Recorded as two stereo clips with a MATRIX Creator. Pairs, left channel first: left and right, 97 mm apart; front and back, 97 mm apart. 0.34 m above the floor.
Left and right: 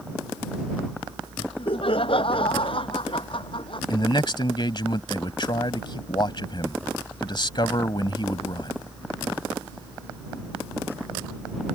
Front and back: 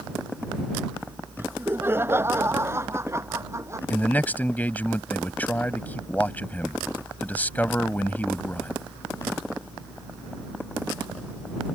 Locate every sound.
1.4 s laughter: 110° left; by 3.8 s 120° left
3.9 s a man speaking: 70° left